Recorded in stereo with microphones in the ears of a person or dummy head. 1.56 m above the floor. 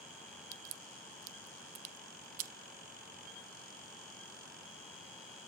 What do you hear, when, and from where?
0.5 s a crack: 50° right (ahead or behind), 0.6 m